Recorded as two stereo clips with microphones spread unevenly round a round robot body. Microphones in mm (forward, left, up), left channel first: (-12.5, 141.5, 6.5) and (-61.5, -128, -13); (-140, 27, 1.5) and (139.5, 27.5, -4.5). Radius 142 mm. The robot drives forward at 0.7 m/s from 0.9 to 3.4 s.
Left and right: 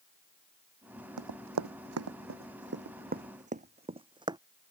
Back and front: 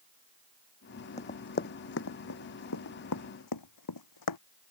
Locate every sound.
1.2 s running footsteps: 110° right; by 4.4 s 175° right